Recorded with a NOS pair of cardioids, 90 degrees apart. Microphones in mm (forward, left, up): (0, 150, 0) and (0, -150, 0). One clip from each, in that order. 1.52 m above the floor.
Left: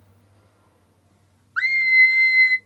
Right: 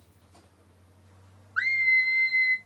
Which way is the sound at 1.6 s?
15° left.